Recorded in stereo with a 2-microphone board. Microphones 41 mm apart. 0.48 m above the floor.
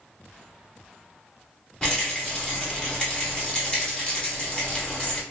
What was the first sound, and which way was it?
A rattle, 20° left (ahead or behind).